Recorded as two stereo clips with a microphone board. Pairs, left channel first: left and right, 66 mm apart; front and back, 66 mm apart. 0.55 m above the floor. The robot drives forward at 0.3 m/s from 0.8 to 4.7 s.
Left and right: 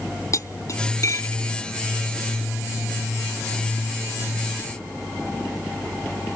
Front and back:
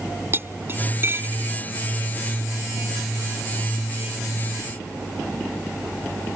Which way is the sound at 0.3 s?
125° left.